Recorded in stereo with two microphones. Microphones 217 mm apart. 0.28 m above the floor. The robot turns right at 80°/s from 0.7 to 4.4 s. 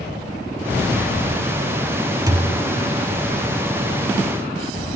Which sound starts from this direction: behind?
A thud, at 2.3 s.